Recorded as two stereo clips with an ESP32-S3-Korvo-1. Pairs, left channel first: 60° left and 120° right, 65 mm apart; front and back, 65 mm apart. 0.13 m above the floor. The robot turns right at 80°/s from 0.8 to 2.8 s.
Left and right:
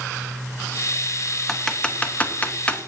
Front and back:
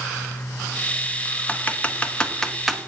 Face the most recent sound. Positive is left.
turn(degrees=90)